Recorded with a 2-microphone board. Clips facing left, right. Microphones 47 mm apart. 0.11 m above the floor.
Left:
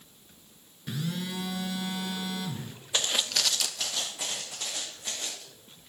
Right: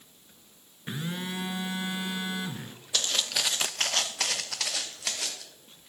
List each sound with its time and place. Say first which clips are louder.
0.9 s a phone buzzing: even; 25° right (ahead or behind), 0.6 m
2.9 s footsteps: left 1 dB; 25° left (ahead or behind), 0.7 m; by 5.4 s 85° right, 1.9 m